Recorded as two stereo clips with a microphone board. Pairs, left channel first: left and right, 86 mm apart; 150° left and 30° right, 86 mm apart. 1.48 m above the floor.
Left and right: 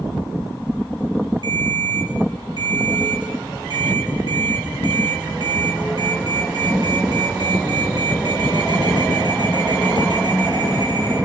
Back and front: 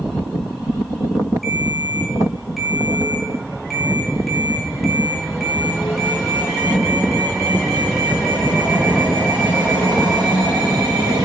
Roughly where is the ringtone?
Behind right.